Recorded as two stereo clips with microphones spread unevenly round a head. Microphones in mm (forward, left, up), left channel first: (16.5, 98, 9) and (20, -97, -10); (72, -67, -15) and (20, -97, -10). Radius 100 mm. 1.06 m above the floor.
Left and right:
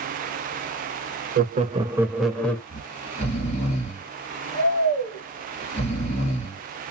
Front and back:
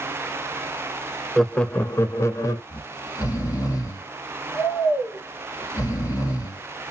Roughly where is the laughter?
Ahead right.